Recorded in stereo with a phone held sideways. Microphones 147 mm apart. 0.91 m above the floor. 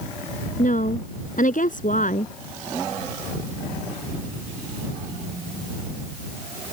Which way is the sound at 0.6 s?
60° left (ahead or behind).